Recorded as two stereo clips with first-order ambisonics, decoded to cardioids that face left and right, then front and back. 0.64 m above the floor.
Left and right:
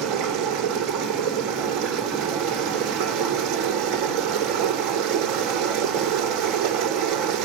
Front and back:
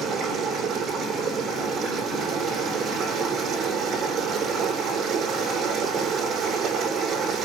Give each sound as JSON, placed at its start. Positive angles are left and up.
{"t": 0.0, "sound": "running water", "azimuth_deg": -120, "distance_m": 8.5}